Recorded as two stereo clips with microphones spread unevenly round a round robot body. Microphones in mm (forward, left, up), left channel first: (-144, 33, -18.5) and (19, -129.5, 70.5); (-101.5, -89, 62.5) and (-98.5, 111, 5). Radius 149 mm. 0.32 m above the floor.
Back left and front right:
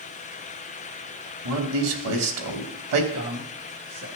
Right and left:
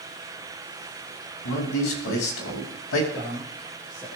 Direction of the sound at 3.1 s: Straight ahead.